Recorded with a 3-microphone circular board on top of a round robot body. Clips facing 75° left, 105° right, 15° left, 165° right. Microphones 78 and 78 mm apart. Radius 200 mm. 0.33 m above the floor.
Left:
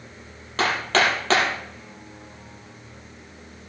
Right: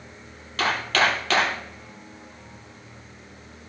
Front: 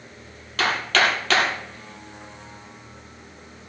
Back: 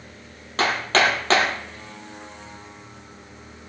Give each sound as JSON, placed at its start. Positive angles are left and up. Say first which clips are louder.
{"t": 0.6, "sound": "hammering", "louder": "left 1 dB, back 1 dB", "azimuth_deg": 135, "distance_m": 5.5}